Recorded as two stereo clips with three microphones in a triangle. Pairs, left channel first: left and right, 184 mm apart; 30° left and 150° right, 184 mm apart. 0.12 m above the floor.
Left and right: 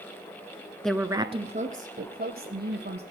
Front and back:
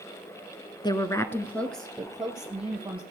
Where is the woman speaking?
10° left, 1.1 m; by 3.0 s 65° right, 3.5 m.